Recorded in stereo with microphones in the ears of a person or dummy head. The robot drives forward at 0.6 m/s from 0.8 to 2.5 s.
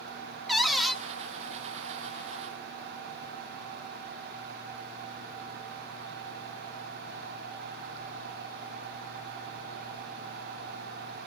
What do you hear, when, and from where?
0.5 s a cupboard door: centre (ahead or behind), 0.8 m